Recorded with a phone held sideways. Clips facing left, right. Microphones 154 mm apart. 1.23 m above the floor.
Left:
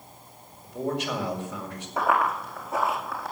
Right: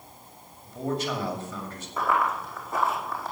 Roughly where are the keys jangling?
I don't hear keys jangling.